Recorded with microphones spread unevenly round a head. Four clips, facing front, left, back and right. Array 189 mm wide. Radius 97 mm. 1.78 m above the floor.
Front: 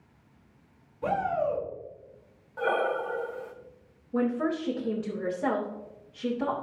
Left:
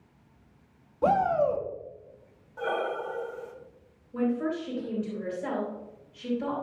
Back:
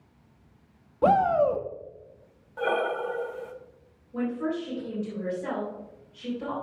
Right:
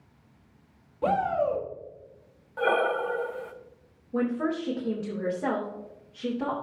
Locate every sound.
1.0 s a shout: 170° left, 1.2 m
2.6 s breathing: 100° right, 0.8 m
4.1 s a woman speaking: 45° right, 2.5 m